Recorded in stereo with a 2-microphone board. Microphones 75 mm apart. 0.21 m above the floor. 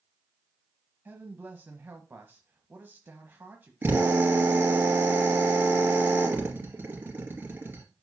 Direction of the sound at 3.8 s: 25° right (ahead or behind).